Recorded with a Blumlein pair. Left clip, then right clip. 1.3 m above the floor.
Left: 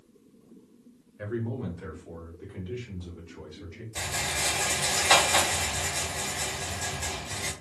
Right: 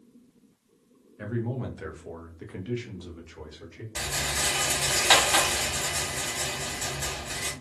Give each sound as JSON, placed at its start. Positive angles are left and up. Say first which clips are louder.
{"t": 1.2, "sound": "a man speaking", "louder": "even", "azimuth_deg": -5, "distance_m": 0.9}
{"t": 4.0, "sound": "a rattle", "louder": "right 1 dB", "azimuth_deg": -60, "distance_m": 1.1}